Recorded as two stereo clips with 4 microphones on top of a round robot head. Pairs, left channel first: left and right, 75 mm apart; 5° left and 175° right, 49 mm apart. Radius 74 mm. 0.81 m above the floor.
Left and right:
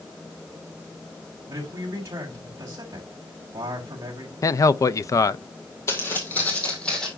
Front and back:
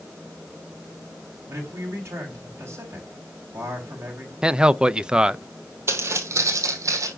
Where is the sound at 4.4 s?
115° left, 0.6 m.